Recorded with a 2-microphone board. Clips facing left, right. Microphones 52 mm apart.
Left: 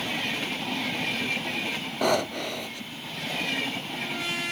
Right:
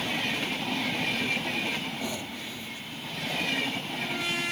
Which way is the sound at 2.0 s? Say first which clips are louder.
Left 10 dB; 65° left (ahead or behind).